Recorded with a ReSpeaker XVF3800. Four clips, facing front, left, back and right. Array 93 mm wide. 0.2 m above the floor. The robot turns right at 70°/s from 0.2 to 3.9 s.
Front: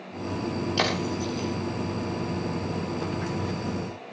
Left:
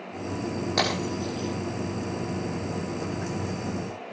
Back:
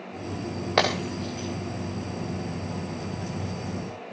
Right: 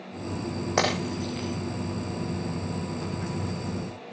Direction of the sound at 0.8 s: 160° right.